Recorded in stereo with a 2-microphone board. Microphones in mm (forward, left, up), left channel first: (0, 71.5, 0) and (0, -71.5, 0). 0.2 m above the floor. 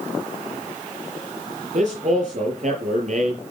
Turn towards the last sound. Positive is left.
turn(degrees=-50)  # may be behind; listen again after turning